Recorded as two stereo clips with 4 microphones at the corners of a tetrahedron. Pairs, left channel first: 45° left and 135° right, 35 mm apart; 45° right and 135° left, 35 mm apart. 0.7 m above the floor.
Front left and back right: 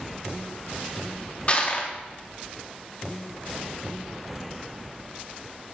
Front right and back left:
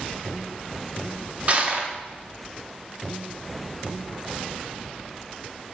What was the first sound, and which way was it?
Crushing, 90° left.